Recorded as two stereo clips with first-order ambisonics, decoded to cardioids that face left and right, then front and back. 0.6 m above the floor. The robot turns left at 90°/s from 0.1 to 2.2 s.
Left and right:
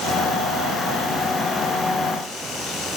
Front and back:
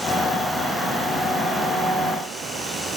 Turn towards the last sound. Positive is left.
No sound to turn to.